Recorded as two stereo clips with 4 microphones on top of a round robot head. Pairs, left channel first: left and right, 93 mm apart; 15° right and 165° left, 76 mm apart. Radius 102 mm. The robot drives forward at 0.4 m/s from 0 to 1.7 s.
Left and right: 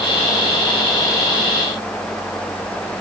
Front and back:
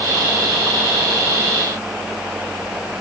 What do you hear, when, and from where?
Only background noise.